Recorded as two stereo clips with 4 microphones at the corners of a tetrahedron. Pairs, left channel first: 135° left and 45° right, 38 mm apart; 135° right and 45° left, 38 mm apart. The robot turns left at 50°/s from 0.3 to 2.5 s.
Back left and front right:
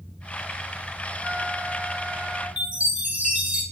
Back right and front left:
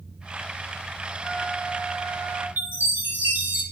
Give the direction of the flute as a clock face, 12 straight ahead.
3 o'clock.